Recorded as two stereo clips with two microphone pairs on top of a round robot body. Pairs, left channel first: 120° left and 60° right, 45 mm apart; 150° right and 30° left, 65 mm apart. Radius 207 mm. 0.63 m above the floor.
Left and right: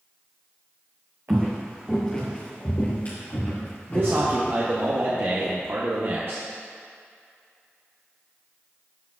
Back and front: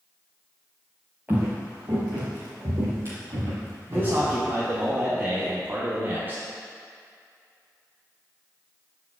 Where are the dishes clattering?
No dishes clattering in this recording.